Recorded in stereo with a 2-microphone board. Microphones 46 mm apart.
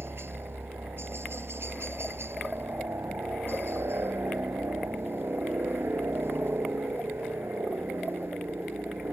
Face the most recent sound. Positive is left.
turn(degrees=-60)  # may be behind; listen again after turning